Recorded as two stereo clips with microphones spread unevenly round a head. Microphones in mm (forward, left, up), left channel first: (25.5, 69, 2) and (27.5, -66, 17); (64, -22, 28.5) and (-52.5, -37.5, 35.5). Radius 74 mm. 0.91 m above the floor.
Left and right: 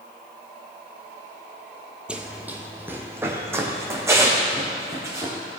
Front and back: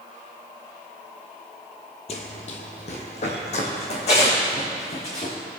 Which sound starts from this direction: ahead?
Running footsteps, at 2.1 s.